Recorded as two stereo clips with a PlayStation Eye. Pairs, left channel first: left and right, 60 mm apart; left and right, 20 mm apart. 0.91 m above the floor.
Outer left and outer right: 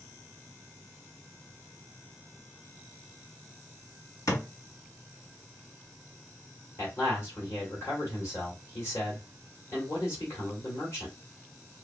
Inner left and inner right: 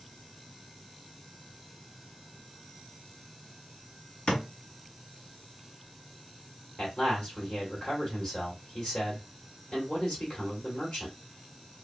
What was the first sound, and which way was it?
A thud, 65° left (ahead or behind).